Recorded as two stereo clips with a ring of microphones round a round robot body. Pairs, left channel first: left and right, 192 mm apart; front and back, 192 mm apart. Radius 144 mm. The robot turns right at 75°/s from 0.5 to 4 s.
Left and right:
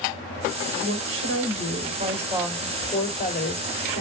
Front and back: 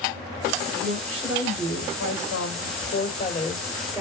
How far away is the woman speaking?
About 2.5 m.